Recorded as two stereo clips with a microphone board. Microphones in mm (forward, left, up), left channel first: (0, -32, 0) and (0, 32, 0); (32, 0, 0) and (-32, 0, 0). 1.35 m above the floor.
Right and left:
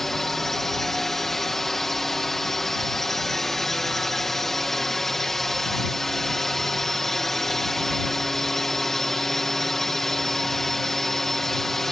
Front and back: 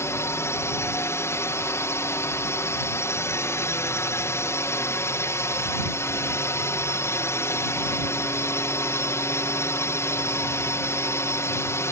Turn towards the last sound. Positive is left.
turn(degrees=-5)